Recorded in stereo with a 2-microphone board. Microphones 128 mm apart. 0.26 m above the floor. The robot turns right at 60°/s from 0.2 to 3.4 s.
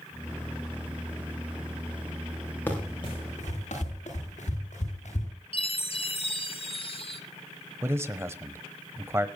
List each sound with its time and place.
2.7 s running footsteps: 15° left (ahead or behind), 9 m; by 5.3 s 65° left (ahead or behind), 11 m
5.5 s a chime: 45° left (ahead or behind), 1.5 m
7.8 s a man speaking: 20° right (ahead or behind), 1.1 m